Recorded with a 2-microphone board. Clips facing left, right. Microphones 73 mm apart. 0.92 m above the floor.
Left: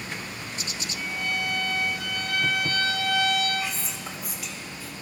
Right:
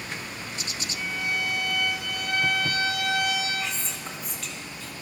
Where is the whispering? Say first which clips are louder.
Even; 5° left (ahead or behind), 1.0 m.